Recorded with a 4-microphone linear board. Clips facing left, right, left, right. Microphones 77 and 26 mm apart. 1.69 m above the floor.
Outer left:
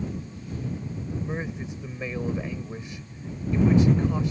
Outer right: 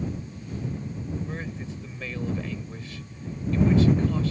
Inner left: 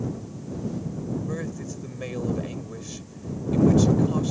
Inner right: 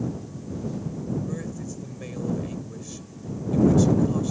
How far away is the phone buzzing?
No phone buzzing in this recording.